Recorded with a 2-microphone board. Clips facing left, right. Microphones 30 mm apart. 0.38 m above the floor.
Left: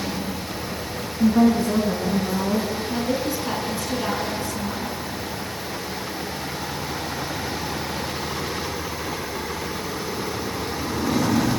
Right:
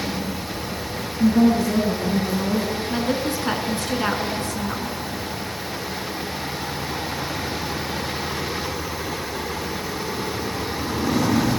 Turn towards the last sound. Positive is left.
turn(degrees=-55)  # may be behind; listen again after turning